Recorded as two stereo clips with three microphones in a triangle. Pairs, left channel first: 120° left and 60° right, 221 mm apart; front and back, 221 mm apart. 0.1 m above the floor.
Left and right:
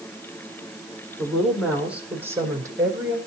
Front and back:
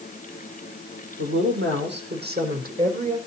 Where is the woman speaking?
155° right, 5 m; by 3.2 s 130° right, 4.5 m.